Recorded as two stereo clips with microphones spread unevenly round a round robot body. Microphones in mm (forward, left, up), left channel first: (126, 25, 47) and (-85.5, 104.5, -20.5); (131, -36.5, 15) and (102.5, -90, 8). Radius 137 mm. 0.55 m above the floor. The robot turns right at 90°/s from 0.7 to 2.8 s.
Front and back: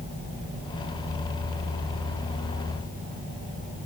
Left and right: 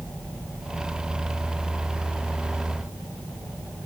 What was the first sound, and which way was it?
Only background noise.